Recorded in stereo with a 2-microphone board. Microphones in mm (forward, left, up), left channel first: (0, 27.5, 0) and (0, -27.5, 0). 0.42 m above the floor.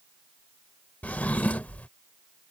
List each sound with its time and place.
1.0 s a drawer: 30° left (ahead or behind)